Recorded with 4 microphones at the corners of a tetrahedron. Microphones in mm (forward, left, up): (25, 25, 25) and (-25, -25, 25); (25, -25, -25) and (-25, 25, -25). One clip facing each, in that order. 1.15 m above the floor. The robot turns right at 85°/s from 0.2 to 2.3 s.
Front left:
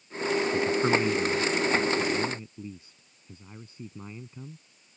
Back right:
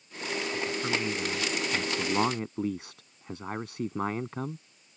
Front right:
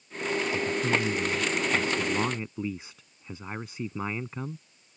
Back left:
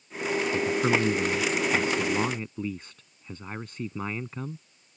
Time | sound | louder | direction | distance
0.5 | a man speaking | front left 6 dB, back left 4 dB | 80° left | ?